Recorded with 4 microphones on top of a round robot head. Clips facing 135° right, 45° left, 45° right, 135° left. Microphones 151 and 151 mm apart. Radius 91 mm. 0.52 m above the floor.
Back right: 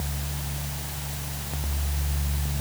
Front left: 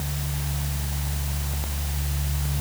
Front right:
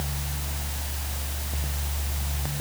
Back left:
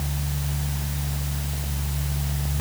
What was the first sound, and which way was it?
Only background noise.